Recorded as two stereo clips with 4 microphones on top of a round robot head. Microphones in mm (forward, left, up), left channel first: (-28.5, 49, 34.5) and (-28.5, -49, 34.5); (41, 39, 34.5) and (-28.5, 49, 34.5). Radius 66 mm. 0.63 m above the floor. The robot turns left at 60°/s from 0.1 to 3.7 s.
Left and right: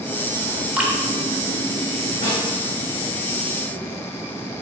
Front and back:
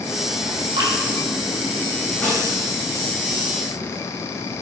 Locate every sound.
0.8 s dripping: 165° right, 1.3 m; by 0.9 s straight behind, 1.3 m
2.2 s a snare drum: 65° left, 3 m; by 2.4 s 55° left, 3 m